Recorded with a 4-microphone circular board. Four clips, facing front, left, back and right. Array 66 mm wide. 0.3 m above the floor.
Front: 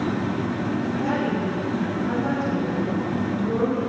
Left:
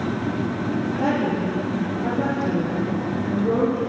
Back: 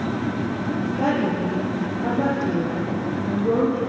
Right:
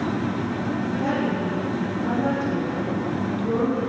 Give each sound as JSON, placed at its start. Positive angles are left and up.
{"t": 1.0, "sound": "a woman speaking", "azimuth_deg": 155, "distance_m": 9.0}